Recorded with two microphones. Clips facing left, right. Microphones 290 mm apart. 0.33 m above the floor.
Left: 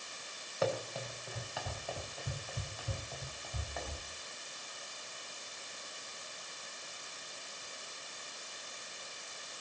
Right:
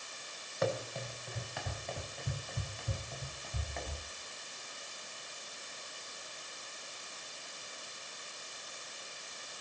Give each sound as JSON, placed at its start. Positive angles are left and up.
{"t": 0.6, "sound": "running footsteps", "side_deg": 0, "distance_m": 5.5}